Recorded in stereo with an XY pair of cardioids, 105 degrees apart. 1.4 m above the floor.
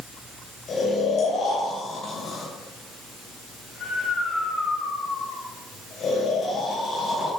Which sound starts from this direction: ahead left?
Snoring, at 0.7 s.